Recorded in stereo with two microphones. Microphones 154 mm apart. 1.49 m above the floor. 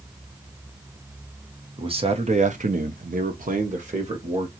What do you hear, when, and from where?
1.8 s a man speaking: 35° right (ahead or behind), 0.9 m; by 4.5 s 40° right (ahead or behind), 1.0 m